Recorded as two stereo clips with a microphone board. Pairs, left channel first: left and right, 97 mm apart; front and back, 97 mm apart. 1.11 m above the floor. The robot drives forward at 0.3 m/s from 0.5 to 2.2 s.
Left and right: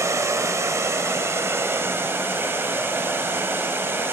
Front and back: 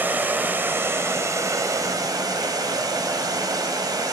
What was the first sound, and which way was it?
Running water, 125° right.